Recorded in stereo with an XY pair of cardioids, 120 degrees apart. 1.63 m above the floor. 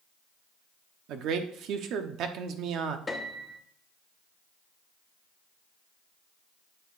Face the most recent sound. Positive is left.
turn(degrees=20)